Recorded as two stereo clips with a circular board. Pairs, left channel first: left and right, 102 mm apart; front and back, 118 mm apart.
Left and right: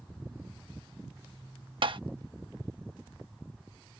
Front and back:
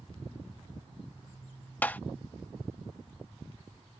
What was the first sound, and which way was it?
Tapping, 75° right.